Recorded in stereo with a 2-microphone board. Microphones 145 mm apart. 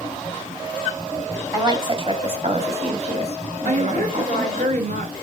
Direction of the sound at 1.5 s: 25° right (ahead or behind).